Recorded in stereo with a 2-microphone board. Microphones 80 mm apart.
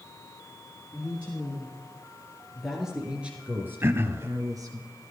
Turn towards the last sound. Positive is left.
turn(degrees=-30)  # may be behind; listen again after turning